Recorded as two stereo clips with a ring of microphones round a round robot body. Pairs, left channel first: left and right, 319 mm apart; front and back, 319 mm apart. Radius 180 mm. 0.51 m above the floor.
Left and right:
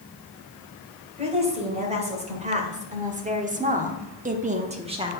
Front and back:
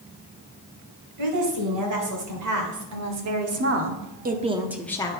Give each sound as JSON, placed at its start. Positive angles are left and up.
{"t": 1.2, "sound": "a woman speaking", "azimuth_deg": -160, "distance_m": 2.5}